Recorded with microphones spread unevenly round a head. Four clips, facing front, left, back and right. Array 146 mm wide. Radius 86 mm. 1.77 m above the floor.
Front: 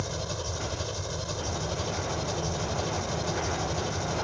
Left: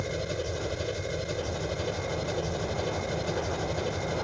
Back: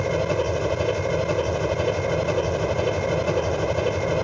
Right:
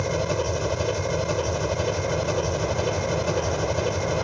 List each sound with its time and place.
0.0 s an engine running: 165° right